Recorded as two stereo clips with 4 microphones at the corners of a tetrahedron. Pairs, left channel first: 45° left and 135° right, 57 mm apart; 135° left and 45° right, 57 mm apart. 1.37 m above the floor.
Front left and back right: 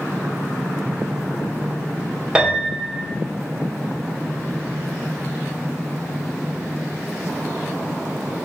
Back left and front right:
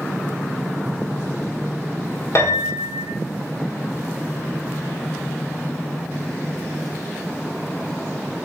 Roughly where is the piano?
Behind left.